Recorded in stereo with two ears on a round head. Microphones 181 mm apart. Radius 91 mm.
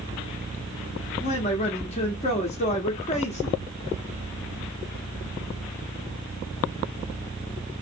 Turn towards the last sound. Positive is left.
turn(degrees=30)  # may be behind; listen again after turning